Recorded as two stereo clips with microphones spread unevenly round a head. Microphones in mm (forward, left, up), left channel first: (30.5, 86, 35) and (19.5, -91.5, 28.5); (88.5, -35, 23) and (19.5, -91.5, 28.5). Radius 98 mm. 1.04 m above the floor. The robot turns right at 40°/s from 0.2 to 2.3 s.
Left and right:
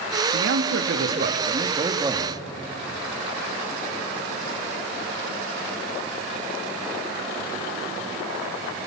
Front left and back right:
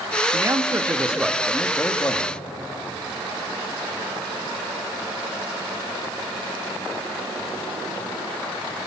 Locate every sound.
0.3 s a man speaking: 90° right, 2.0 m; by 2.4 s 15° right, 2.0 m